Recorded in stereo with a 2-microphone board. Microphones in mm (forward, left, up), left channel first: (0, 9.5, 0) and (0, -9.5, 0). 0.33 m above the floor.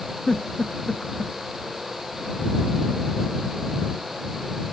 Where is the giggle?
40° left (ahead or behind).